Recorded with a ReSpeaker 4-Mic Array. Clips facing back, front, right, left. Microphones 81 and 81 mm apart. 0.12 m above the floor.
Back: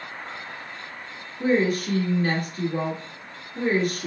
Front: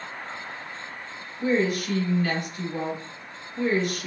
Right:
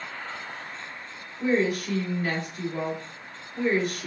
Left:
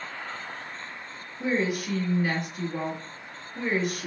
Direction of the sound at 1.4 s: 165° left.